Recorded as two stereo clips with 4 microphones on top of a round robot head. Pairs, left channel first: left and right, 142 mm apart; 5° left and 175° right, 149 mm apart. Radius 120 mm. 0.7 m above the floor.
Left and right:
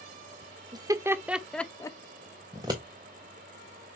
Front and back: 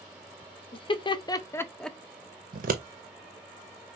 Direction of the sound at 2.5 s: 160° right.